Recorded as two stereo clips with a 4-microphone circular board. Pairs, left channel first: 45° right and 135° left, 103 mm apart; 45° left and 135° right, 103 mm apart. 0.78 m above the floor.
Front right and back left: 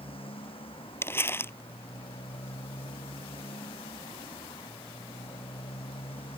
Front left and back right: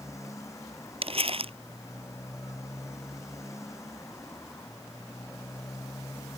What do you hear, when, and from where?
0.0 s a motorcycle: 15° right
1.0 s crumpling: 110° right